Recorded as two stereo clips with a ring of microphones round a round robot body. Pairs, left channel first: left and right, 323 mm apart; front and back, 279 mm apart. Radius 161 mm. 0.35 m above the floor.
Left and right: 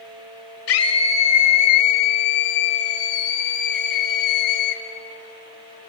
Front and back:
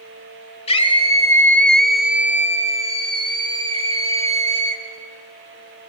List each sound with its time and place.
0.7 s a scream: 60° left, 1.6 m; by 4.8 s 115° left, 3.5 m